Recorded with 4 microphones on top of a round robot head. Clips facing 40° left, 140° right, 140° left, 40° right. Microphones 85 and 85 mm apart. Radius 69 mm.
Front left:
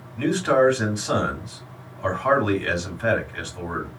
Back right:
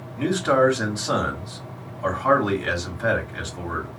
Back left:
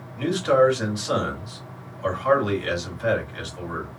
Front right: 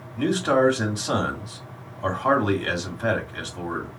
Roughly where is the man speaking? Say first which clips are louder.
Even, back left 2 dB; right.